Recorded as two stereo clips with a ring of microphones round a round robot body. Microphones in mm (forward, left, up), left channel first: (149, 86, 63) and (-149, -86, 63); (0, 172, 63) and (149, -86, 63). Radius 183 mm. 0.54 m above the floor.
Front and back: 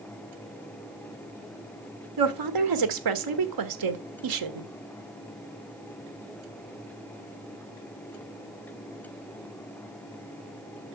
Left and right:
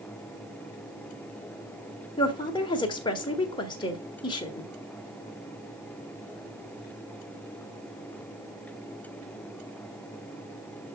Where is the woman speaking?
165° right, 1.5 m.